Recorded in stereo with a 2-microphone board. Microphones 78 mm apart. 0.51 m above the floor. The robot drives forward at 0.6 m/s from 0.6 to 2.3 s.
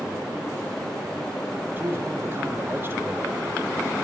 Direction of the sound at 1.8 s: 30° right (ahead or behind).